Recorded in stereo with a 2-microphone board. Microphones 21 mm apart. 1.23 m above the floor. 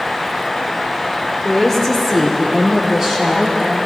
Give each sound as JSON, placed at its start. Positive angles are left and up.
{"t": 1.4, "sound": "a woman speaking", "side_deg": 10, "distance_m": 2.5}